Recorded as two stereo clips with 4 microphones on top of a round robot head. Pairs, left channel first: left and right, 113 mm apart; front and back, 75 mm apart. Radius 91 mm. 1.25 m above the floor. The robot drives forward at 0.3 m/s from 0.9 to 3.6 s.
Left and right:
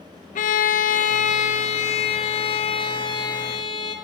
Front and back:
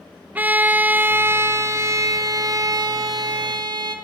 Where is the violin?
115° left, 0.7 m; by 4.0 s 150° left, 1.2 m.